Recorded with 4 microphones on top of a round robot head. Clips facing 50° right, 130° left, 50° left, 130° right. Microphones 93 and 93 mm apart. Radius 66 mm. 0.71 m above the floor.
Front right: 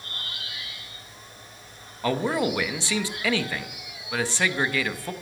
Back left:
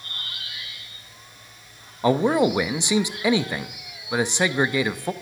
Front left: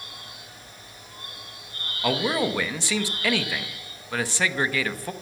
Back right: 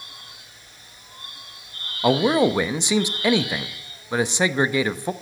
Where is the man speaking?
Straight behind, 0.7 m.